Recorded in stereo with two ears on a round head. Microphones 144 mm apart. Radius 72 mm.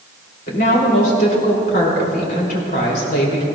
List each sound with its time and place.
0.5 s a woman speaking: 55° left (ahead or behind), 3.5 m